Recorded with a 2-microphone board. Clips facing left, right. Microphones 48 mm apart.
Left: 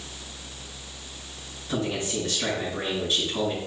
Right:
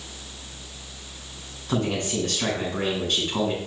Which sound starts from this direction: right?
A man speaking, at 1.7 s.